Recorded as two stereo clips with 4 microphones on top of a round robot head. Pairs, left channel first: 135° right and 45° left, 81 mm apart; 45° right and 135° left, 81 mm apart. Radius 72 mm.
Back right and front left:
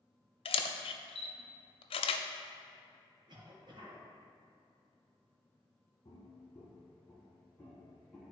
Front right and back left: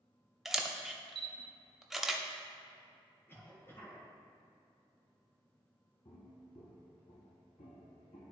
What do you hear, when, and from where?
0.5 s a camera shutter: 135° right, 0.5 m
3.3 s a cough: 20° left, 2.0 m
6.0 s footsteps: 85° right, 1.2 m; by 8.3 s 50° right, 1.9 m